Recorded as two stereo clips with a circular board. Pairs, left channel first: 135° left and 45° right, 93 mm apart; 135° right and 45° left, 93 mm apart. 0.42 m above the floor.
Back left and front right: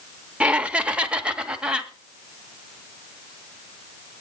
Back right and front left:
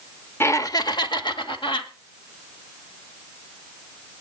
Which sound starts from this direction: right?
Laughter, at 0.4 s.